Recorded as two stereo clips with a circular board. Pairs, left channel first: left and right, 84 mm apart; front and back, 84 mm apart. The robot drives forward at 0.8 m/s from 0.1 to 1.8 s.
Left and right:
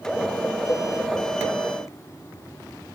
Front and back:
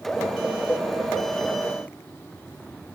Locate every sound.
0.7 s a cowbell: 70° left, 0.7 m; by 0.9 s 90° left, 0.6 m